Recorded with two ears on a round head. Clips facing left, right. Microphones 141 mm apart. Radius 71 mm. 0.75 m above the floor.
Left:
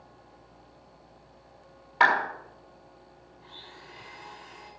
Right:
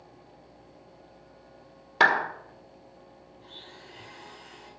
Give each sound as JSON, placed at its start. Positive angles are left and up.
{"t": 2.0, "sound": "a clap", "side_deg": -50, "distance_m": 1.6}
{"t": 3.4, "sound": "a blender", "side_deg": -50, "distance_m": 6.0}